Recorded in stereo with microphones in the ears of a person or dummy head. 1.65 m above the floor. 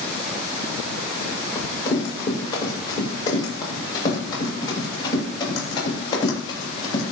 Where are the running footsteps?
20° left (ahead or behind), 8 m; by 7.0 s 25° left (ahead or behind), 12 m.